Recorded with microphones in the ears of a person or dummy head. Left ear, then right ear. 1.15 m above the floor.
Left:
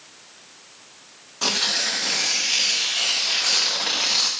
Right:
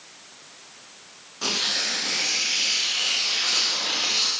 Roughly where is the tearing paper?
Left.